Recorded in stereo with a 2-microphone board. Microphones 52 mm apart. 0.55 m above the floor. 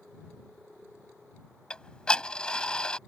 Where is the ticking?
20° left (ahead or behind).